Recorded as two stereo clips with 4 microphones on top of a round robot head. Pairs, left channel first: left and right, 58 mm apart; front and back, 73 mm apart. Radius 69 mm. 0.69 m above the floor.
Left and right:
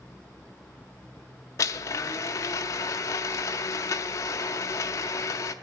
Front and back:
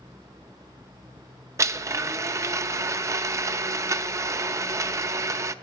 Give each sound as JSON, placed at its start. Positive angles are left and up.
{"t": 1.6, "sound": "a blender", "azimuth_deg": 135, "distance_m": 0.6}